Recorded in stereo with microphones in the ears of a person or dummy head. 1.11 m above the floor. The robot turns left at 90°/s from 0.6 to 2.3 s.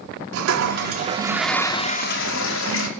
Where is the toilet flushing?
100° right, 2.5 m; by 2.9 s 105° left, 2.5 m.